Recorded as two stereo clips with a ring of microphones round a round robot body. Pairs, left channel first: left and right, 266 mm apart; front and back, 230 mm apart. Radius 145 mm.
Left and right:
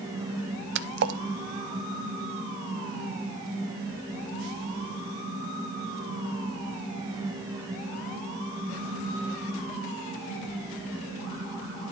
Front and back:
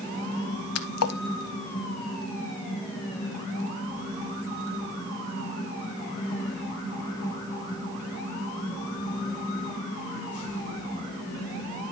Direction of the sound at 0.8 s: 40° right.